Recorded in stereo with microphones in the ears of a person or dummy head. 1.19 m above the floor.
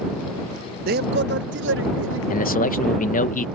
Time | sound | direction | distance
0.9 | a man speaking | 50° right (ahead or behind) | ?
2.3 | a man speaking | 40° left (ahead or behind) | ?